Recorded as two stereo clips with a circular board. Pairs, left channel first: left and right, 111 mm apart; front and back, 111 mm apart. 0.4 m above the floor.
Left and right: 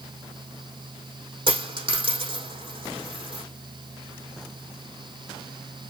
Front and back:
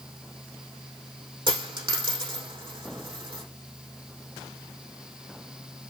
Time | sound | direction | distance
1.5 | a dropped coin | 135° right | 4.5 m